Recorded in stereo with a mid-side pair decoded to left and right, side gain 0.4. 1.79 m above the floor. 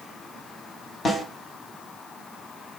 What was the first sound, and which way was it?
A snare drum, 45° left.